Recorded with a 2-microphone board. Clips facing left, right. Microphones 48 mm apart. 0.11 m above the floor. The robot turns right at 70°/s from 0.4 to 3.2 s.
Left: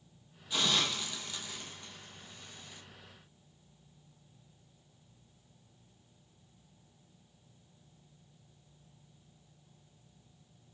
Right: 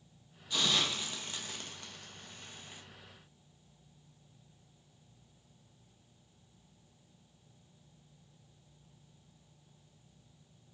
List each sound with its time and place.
0.5 s a hiss: 10° left (ahead or behind), 1.1 m; by 2.8 s 25° right (ahead or behind), 1.1 m